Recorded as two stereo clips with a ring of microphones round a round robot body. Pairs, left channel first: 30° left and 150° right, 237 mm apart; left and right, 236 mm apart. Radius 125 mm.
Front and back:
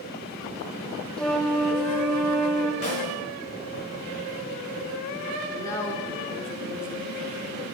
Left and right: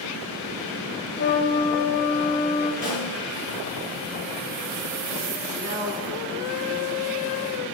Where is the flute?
115° left, 0.8 m.